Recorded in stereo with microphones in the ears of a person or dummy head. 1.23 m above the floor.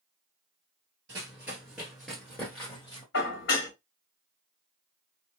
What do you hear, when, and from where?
1.1 s running footsteps: 15° right (ahead or behind), 1.5 m; by 3.0 s 20° left (ahead or behind), 1.7 m
3.1 s dishes clattering: 65° left (ahead or behind), 1.1 m